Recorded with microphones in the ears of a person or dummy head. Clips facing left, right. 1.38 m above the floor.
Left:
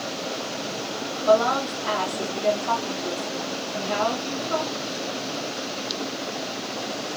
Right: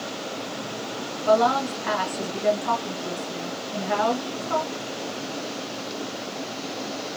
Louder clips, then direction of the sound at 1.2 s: Even; 25° right (ahead or behind).